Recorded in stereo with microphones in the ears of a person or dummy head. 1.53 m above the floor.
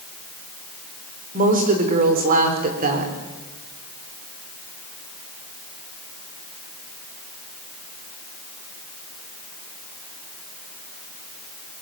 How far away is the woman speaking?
About 5 m.